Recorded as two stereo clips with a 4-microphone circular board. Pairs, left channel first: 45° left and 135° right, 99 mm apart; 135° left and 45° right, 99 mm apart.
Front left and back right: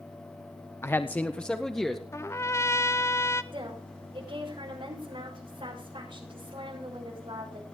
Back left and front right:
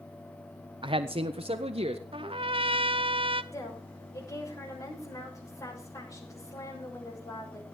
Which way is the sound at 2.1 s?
20° right.